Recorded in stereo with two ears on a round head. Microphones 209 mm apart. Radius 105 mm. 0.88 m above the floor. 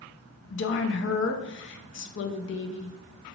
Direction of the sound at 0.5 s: 50° left (ahead or behind).